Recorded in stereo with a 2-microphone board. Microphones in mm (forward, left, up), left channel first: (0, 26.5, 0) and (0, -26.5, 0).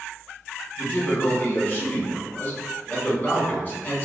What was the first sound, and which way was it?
A man speaking, 35° left (ahead or behind).